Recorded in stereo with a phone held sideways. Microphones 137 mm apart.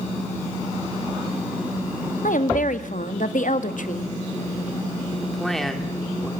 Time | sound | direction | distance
2.2 | a woman speaking | 70° left (ahead or behind) | 1.2 m
5.2 | a man speaking | centre (ahead or behind) | 2.0 m